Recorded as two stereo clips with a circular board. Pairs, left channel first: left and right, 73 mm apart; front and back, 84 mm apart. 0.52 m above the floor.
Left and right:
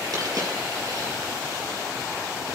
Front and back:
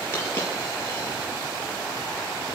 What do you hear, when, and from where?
0.1 s a dropped coin: 60° right, 5.5 m